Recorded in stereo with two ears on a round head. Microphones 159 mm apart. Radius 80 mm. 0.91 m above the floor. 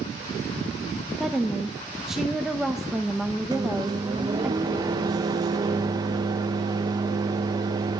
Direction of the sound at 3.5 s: 20° right (ahead or behind).